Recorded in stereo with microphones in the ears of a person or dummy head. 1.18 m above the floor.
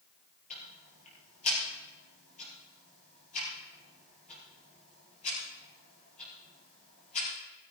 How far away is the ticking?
About 5.5 m.